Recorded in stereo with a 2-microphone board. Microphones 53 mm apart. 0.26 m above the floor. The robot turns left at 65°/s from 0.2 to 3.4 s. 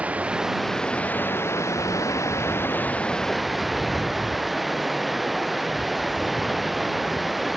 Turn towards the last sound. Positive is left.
turn(degrees=-5)